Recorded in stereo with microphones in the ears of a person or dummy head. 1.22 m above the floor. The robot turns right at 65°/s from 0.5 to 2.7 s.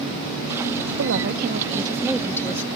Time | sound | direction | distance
1.0 | a woman speaking | 80° right | ?